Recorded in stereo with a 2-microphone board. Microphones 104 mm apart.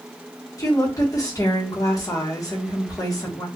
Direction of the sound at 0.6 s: 35° left (ahead or behind).